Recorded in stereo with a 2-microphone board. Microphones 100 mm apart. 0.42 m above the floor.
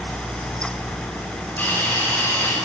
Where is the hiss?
20° left (ahead or behind), 2 m.